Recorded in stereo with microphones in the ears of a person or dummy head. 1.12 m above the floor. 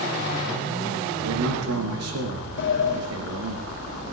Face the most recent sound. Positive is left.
turn(degrees=55)  # may be behind; listen again after turning